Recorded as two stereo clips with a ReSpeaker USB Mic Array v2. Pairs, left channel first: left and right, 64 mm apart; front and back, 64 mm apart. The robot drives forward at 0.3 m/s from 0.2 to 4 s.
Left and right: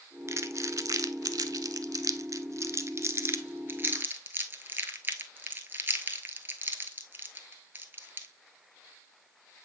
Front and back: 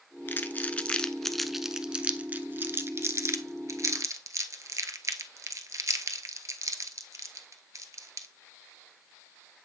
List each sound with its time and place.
0.3 s crumpling: 55° right, 0.6 m; by 8.3 s 150° right, 0.9 m